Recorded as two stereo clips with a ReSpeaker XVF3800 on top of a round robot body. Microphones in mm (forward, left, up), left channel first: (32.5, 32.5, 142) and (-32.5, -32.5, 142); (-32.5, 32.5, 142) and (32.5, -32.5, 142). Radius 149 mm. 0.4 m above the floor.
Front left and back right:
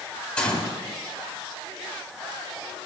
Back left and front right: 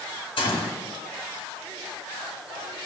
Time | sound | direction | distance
0.4 | a gunshot | 125° left | 4 m